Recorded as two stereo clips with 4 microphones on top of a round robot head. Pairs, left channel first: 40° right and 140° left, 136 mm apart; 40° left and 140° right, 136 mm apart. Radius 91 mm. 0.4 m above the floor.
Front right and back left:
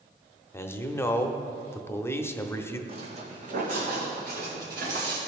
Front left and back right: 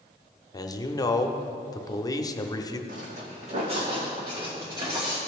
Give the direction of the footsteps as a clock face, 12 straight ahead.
6 o'clock.